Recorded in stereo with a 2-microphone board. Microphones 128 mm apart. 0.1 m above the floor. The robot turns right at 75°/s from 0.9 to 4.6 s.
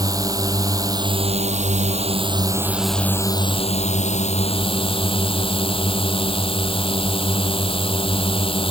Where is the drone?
150° right; by 8.7 s 130° left.